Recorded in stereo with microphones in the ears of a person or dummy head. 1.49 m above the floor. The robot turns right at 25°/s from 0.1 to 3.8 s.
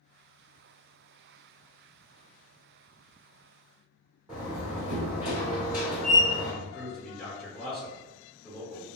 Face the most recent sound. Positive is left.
turn(degrees=10)  # may be behind; listen again after turning